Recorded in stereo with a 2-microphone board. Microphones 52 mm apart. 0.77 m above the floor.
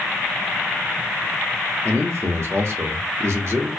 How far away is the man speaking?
About 0.8 m.